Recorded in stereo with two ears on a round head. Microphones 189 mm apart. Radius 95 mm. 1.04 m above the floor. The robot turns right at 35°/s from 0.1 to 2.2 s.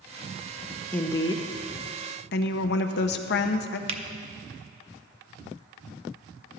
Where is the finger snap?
30° right (ahead or behind), 0.7 m.